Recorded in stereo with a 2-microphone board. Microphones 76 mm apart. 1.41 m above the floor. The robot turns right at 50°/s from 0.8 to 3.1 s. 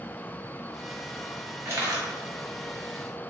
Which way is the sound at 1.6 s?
35° right (ahead or behind).